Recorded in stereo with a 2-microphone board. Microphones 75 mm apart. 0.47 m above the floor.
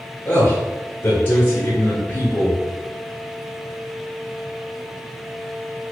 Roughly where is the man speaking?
Left.